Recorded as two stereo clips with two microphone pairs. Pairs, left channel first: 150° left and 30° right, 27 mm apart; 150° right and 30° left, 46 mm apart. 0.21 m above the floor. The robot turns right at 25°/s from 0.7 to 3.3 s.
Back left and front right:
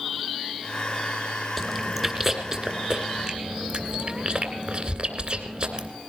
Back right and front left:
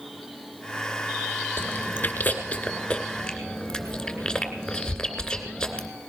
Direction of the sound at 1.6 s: 120° right.